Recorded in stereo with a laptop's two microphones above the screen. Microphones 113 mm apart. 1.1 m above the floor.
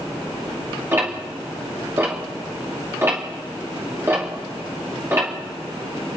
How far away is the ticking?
About 2.5 m.